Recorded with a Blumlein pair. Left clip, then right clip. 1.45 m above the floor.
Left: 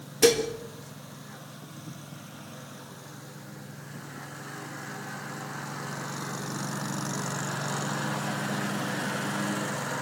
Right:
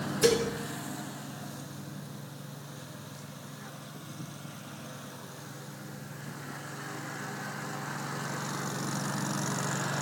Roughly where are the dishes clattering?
Ahead left.